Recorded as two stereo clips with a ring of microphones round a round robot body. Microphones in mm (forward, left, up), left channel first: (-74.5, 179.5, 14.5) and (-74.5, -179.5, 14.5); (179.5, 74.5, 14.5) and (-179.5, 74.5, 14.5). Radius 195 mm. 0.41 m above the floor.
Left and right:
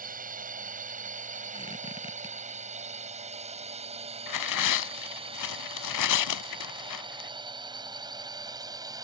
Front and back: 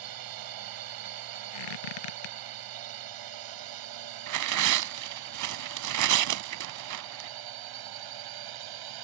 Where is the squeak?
10° left.